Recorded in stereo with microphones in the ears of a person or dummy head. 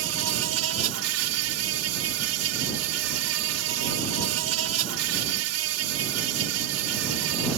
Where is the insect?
70° right (ahead or behind).